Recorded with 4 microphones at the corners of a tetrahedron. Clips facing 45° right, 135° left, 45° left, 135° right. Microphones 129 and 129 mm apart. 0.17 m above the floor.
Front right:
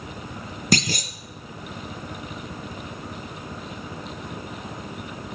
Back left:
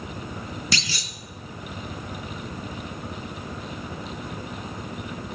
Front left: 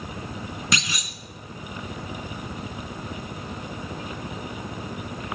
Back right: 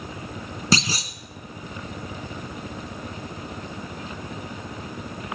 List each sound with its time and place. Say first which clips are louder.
0.7 s a clunk: front right 14 dB, back right 8 dB; 80° right, 0.8 m